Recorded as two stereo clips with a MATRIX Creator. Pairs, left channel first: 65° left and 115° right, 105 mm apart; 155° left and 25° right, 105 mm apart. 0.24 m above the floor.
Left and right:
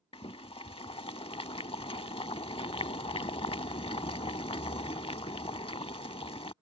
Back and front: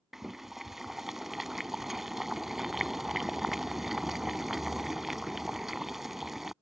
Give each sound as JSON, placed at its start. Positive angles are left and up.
{"t": 0.1, "sound": "boiling", "azimuth_deg": 65}